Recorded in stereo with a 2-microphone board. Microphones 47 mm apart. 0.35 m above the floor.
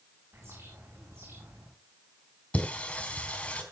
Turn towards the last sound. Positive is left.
turn(degrees=30)  # may be behind; listen again after turning